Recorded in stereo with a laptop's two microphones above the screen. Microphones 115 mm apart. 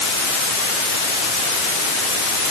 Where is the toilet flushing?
No toilet flushing in this recording.